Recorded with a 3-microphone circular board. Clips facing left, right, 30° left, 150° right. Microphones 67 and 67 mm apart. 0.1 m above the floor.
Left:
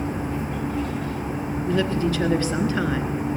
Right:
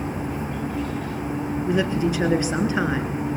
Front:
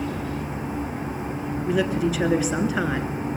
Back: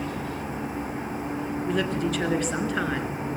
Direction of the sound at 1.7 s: 50° right.